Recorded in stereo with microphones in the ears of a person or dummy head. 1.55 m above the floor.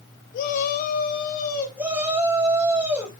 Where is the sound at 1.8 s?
10° right (ahead or behind), 4 m.